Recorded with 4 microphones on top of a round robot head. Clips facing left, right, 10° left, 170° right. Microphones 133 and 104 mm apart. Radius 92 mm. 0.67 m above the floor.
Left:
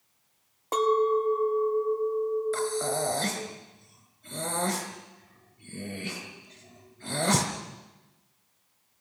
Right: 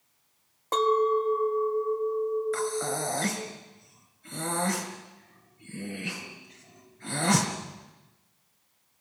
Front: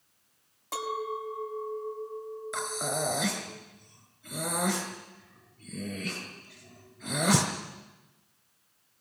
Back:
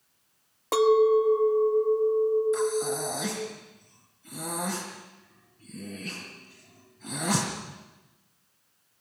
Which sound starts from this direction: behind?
A clink, at 0.7 s.